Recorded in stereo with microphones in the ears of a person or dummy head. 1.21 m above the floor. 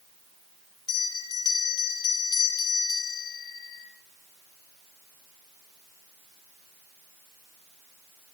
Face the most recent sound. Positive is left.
turn(degrees=20)  # may be behind; listen again after turning